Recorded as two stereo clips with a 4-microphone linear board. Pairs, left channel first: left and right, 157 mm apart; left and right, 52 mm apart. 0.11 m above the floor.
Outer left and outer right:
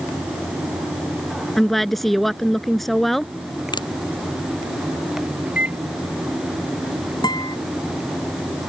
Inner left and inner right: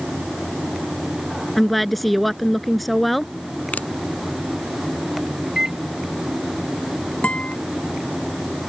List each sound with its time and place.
1.6 s a woman speaking: centre (ahead or behind)
3.7 s a finger snap: 30° left (ahead or behind)
5.5 s a microwave: 10° right (ahead or behind)
7.2 s a guitar: 25° left (ahead or behind)